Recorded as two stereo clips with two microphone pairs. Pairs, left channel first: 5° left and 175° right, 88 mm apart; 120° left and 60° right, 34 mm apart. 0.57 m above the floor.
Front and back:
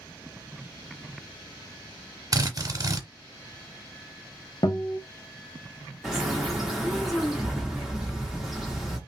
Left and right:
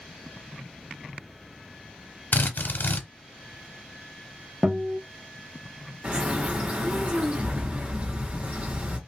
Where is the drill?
140° left, 0.7 m.